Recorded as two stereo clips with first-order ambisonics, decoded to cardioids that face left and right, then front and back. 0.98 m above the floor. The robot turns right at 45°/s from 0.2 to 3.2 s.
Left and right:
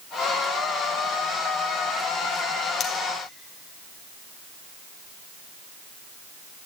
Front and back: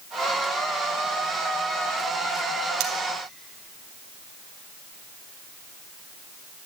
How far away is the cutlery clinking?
About 2 m.